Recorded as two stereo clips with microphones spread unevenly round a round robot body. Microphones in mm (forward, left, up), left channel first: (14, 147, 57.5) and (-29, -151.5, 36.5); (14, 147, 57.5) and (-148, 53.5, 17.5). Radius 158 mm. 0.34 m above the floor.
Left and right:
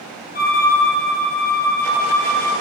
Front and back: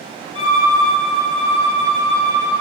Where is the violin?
20° left, 2.5 m.